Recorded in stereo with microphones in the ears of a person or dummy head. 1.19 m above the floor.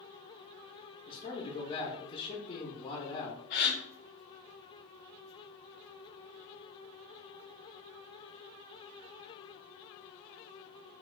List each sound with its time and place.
1.1 s a man speaking: 30° left (ahead or behind), 0.6 m
3.5 s a gasp: 40° left (ahead or behind), 0.9 m